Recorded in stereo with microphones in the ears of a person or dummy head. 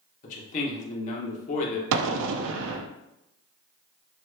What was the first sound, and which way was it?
A man speaking, 45° left (ahead or behind).